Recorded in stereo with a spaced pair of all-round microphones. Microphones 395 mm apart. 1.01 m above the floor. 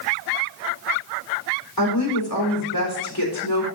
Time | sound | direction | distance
1.8 | a woman speaking | 55° left (ahead or behind) | 3.5 m